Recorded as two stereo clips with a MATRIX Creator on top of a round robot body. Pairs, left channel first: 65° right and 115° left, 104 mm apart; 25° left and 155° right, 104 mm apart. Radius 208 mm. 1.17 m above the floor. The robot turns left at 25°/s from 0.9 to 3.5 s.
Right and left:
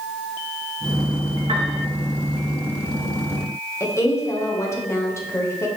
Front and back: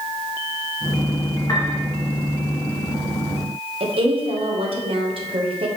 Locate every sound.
1.5 s a piano: 80° left, 0.6 m; by 1.8 s 70° left, 0.6 m
3.8 s a woman speaking: 130° right, 1.6 m